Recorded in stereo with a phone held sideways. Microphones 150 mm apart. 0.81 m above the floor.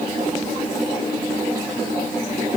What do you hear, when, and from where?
Only background noise.